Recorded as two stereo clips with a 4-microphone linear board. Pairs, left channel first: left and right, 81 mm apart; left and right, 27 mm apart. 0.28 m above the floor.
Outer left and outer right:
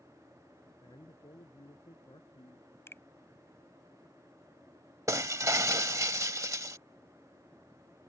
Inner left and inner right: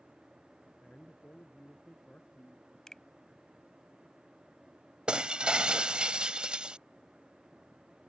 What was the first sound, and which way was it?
A man speaking, 75° left (ahead or behind).